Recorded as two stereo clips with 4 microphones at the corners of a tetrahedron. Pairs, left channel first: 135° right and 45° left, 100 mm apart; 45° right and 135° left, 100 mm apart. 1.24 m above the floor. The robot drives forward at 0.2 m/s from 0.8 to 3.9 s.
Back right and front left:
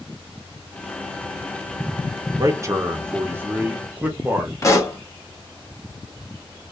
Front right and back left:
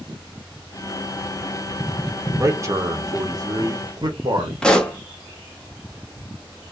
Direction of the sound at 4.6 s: 120° right.